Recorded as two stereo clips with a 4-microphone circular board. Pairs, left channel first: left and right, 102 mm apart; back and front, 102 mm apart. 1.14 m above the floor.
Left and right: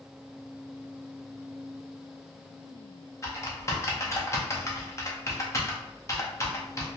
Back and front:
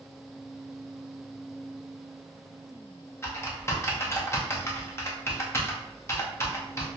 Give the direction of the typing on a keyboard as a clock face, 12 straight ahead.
8 o'clock.